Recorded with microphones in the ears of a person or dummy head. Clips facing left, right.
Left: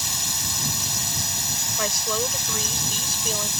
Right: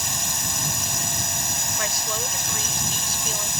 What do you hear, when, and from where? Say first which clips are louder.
0.0 s a drone: right 3 dB; 45° right (ahead or behind)
1.8 s a woman speaking: left 5 dB; 85° left